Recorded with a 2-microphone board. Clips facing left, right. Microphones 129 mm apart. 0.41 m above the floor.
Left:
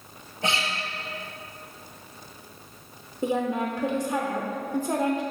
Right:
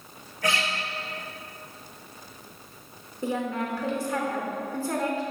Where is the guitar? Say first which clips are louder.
Right 1 dB; 25° left (ahead or behind), 1.5 m.